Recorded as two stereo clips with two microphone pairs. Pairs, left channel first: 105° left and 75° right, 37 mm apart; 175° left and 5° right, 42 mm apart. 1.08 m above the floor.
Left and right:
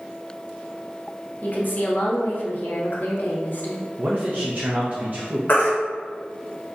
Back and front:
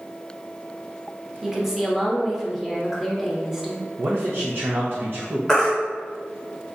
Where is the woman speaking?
75° left, 0.7 m.